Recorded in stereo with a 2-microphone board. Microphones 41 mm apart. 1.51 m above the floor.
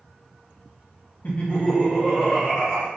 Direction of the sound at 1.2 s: 50° left (ahead or behind).